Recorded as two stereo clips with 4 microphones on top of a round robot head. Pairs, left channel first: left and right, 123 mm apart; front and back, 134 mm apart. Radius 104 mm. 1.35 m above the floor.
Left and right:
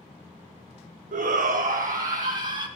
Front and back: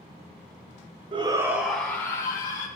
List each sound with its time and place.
1.1 s a shout: 120° right, 0.8 m; by 2.7 s 65° right, 1.5 m